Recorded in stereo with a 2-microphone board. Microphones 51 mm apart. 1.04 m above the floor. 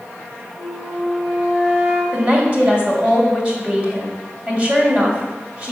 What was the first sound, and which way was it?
A flute, 60° right (ahead or behind).